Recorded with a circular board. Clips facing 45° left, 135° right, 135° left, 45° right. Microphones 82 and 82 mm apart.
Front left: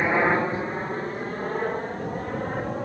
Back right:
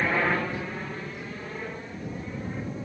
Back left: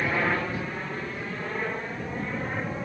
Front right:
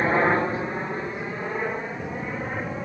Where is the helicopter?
15° right; by 2.9 s 40° left.